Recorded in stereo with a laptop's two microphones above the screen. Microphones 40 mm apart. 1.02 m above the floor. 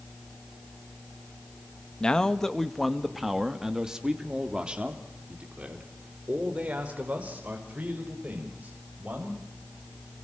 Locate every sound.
2.0 s a man speaking: 25° left (ahead or behind), 1.7 m; by 9.4 s 40° right (ahead or behind), 7 m